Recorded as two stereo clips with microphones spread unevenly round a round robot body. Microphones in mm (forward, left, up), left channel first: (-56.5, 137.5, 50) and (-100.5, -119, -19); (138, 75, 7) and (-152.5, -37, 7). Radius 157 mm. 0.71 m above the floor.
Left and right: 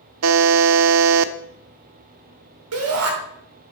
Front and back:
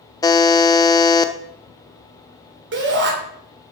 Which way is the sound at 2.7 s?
105° right.